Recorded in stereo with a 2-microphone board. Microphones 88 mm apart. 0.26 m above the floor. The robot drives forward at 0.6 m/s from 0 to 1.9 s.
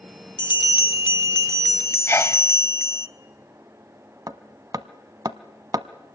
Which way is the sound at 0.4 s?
60° left (ahead or behind).